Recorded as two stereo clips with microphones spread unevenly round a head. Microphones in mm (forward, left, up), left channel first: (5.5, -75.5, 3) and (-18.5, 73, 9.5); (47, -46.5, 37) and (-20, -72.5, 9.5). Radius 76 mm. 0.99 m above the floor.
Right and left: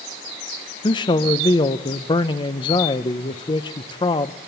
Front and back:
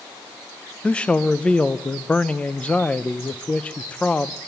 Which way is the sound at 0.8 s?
75° right.